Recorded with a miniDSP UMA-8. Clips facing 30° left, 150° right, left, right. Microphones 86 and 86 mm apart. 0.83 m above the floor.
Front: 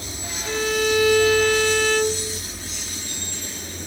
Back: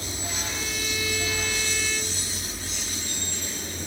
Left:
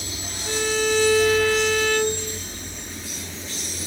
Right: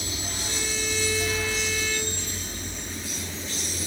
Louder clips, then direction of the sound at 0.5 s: Front 16 dB, left 11 dB; 60° left.